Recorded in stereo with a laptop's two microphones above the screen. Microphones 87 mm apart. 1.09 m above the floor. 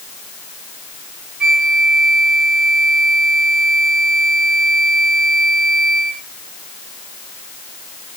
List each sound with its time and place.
1.4 s a flute: 5° right (ahead or behind), 0.9 m